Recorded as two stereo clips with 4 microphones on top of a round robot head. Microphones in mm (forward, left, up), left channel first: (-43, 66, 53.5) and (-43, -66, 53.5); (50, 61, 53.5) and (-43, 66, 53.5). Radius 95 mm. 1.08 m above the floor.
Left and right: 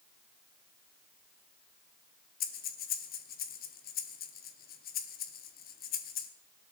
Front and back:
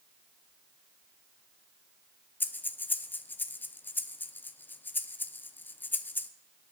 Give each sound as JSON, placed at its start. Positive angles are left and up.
{"t": 2.4, "sound": "breathing", "azimuth_deg": 65, "distance_m": 0.7}